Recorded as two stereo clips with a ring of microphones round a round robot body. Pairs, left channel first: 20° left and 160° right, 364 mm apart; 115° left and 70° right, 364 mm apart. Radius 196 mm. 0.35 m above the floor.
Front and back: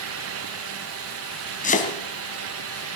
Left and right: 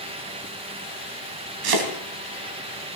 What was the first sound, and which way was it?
Chopping, 45° right.